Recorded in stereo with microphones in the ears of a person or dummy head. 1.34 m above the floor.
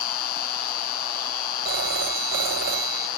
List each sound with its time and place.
0.0 s an insect: 50° left (ahead or behind)
1.6 s a phone ringing: 55° right (ahead or behind)